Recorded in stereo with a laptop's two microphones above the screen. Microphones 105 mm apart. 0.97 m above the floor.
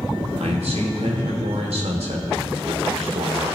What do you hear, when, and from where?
0.4 s a man speaking: 85° right, 2.5 m